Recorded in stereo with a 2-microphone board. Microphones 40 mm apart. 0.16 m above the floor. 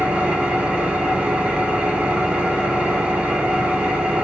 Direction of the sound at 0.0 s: 30° right (ahead or behind).